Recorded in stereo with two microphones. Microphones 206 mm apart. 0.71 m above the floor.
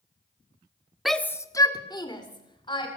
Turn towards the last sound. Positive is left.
turn(degrees=25)  # may be behind; listen again after turning